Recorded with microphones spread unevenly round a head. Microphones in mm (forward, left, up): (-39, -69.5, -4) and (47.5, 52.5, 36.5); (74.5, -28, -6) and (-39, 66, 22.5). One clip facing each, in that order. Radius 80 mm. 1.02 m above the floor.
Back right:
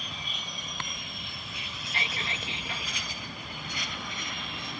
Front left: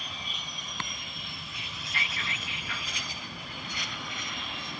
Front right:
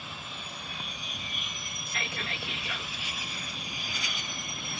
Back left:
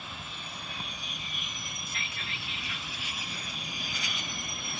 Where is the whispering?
65° right.